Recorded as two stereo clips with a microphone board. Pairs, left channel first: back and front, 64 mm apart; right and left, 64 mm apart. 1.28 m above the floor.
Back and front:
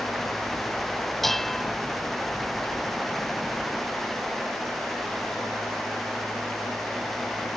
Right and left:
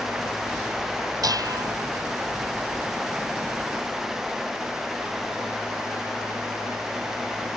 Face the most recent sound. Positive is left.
turn(degrees=95)